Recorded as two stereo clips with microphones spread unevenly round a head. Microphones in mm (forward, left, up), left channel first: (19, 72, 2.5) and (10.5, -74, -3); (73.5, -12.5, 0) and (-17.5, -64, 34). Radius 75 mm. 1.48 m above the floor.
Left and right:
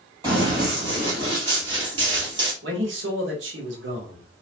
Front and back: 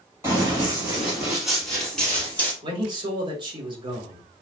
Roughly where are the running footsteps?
Behind right.